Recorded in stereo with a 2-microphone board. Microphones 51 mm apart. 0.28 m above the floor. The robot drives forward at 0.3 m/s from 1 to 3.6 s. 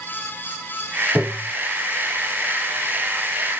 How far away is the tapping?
About 2.5 m.